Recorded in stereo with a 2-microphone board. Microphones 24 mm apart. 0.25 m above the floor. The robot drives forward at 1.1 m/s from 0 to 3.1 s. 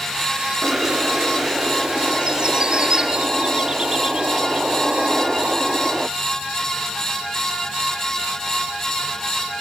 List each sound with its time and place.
0.6 s a bird: 50° right (ahead or behind); by 6.1 s 30° right (ahead or behind)